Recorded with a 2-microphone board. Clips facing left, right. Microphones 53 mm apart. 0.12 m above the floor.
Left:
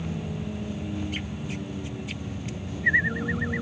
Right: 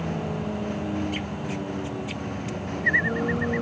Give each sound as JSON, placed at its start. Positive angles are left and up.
{"t": 0.0, "sound": "a vehicle", "side_deg": -60}